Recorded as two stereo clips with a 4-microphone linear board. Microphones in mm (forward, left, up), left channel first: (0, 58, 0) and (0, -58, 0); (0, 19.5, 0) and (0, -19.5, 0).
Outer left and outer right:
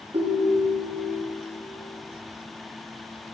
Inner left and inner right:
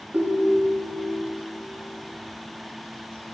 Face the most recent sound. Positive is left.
turn(degrees=-55)  # may be behind; listen again after turning